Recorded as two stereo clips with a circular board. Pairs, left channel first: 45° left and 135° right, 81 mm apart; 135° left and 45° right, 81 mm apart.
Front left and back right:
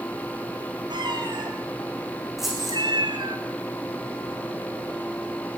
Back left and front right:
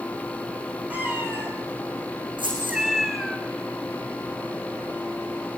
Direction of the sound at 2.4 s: 50° right.